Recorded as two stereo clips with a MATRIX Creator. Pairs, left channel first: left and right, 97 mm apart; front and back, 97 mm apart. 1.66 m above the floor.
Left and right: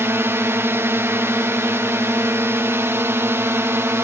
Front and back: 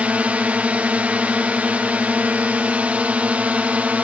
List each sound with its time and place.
0.0 s a drone: 120° right